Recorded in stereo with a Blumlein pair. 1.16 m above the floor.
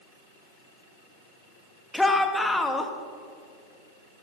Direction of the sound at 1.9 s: 5° left.